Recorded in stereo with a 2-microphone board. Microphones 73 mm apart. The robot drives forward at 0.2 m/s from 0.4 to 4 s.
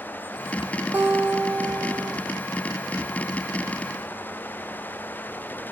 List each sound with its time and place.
0.9 s a guitar: 25° right (ahead or behind), 1.3 m; by 2.2 s 30° right (ahead or behind), 1.1 m